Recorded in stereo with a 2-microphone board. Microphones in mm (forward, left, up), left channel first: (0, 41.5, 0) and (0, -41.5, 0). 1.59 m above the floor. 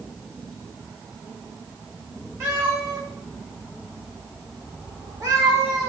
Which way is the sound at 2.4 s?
25° right (ahead or behind).